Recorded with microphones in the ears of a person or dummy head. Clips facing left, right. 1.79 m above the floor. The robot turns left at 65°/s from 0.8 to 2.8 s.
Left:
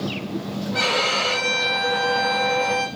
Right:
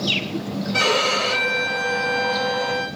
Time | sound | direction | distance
0.7 | a violin | 105° right | 1.4 m